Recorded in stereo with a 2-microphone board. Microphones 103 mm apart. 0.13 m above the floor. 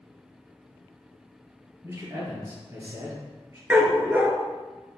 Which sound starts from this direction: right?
A man speaking, at 1.8 s.